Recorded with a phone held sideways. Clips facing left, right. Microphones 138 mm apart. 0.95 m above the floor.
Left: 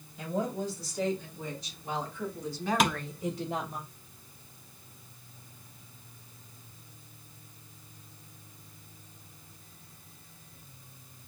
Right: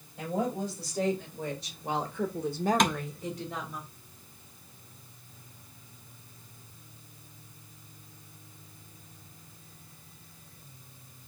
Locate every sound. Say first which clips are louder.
0.2 s a woman speaking: right 1 dB; 75° right (ahead or behind), 3 m; by 3.8 s 45° left (ahead or behind), 1.0 m
2.8 s tapping: right 1 dB; 5° left (ahead or behind), 0.5 m